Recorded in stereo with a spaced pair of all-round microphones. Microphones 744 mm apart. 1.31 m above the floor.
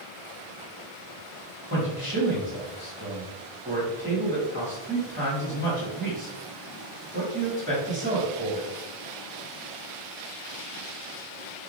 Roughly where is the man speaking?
Centre.